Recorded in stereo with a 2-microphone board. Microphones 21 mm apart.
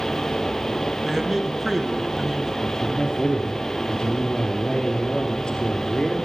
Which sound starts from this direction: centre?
A man speaking, at 1.0 s.